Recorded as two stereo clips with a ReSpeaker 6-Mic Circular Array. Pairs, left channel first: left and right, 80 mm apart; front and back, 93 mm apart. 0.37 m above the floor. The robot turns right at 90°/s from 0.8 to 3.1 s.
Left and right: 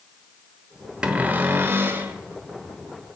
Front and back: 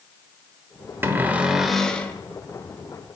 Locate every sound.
1.0 s a cupboard door: 150° right, 0.8 m; by 2.1 s 50° right, 0.8 m